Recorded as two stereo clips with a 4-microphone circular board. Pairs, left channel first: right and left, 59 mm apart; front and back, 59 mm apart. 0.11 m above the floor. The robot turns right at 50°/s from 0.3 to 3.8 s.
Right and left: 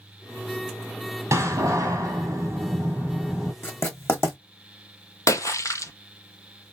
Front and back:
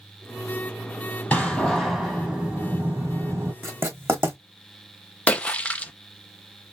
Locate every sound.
1.3 s a door slam: 70° left, 2 m; by 3.5 s straight behind, 2 m
3.6 s writing: 140° right, 2.5 m; by 4.4 s 130° right, 2.5 m
5.3 s a splash: 65° right, 0.5 m